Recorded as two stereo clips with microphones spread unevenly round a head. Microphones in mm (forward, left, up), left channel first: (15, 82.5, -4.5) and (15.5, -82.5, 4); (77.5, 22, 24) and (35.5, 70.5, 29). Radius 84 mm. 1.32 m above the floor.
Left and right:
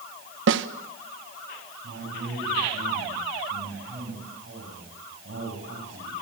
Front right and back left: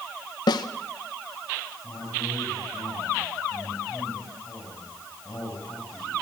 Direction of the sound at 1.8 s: 115° right.